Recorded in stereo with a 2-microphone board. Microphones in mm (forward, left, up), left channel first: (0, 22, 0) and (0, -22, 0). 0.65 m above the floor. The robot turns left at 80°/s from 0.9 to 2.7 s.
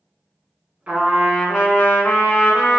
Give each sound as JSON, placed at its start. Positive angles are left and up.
{"t": 0.9, "sound": "a trumpet", "azimuth_deg": -155, "distance_m": 1.6}